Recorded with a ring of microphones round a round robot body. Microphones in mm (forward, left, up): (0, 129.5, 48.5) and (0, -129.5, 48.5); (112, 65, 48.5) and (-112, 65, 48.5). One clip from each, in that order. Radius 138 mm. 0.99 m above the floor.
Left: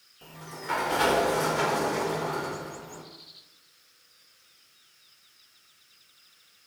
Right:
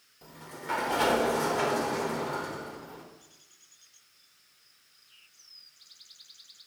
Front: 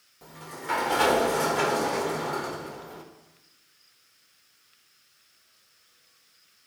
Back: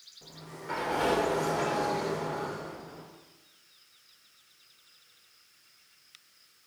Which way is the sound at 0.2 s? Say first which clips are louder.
Left 2 dB, front 7 dB; straight ahead.